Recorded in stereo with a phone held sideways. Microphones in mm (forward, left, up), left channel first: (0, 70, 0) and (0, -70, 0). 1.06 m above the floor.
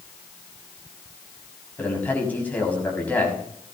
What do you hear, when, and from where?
1.8 s a man speaking: 10° left (ahead or behind), 6.5 m